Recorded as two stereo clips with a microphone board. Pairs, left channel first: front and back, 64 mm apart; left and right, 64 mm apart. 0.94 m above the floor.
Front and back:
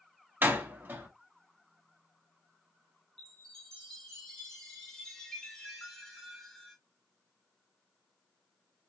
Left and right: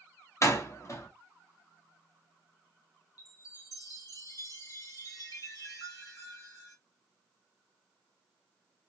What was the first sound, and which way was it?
A door slam, 125° left.